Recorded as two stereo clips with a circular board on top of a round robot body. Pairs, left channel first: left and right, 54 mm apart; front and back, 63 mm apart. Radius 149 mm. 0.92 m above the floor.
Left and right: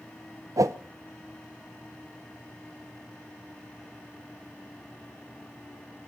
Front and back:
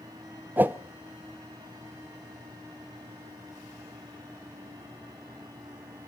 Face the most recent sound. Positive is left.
turn(degrees=-115)